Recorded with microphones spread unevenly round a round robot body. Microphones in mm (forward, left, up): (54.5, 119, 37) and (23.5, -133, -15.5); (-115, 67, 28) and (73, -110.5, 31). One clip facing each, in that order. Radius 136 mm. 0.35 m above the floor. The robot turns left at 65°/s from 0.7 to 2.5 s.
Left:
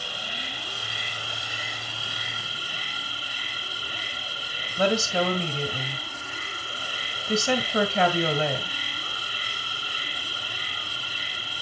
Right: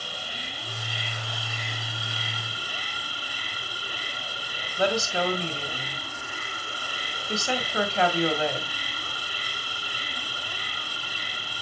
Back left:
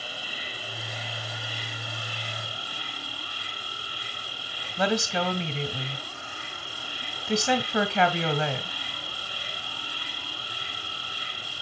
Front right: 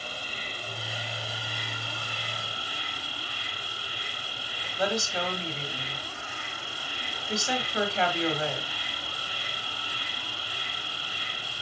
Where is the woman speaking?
130° left, 1.8 m.